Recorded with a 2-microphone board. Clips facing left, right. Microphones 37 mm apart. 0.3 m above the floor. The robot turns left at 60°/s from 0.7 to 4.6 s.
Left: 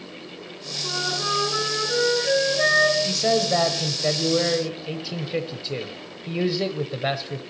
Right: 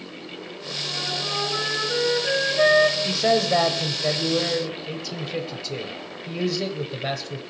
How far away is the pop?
I don't hear a pop.